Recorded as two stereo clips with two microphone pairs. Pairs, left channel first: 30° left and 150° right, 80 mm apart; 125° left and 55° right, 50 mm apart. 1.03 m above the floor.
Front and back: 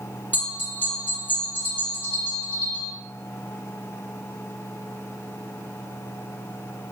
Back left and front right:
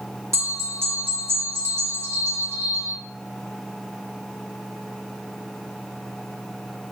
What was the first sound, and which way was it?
A bell, 40° right.